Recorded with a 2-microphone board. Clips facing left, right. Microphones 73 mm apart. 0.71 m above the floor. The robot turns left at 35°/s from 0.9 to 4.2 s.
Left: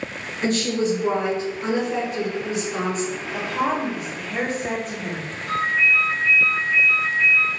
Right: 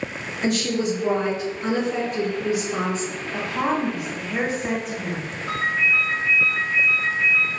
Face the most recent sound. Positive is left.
turn(degrees=-50)  # may be behind; listen again after turning